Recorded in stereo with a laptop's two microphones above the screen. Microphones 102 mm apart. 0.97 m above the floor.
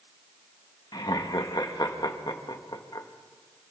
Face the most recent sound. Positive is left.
turn(degrees=45)  # may be behind; listen again after turning